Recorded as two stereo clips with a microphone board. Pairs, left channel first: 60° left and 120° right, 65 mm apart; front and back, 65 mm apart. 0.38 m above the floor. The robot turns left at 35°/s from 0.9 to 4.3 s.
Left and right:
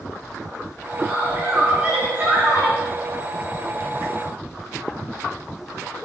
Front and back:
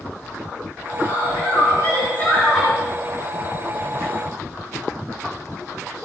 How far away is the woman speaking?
About 4.5 m.